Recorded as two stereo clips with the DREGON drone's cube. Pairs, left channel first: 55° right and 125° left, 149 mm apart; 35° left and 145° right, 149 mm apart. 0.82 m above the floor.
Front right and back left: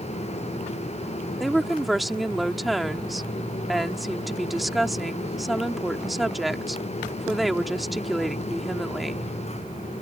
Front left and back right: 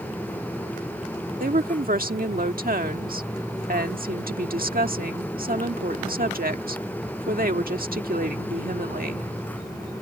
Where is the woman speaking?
145° right.